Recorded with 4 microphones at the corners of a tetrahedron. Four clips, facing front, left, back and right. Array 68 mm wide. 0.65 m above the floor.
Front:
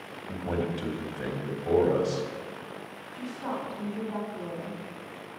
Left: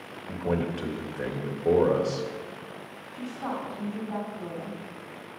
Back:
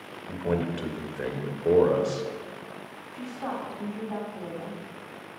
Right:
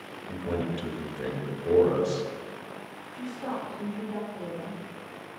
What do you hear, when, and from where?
0.3 s a man speaking: 140° left, 2 m
3.1 s a woman speaking: 145° left, 4.5 m